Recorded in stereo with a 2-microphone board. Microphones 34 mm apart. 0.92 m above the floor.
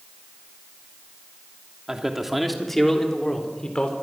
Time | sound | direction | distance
1.9 | a man speaking | 15° right (ahead or behind) | 2.5 m